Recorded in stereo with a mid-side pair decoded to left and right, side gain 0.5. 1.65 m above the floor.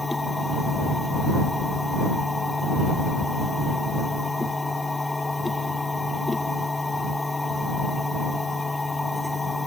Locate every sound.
0.0 s a machine running: 20° left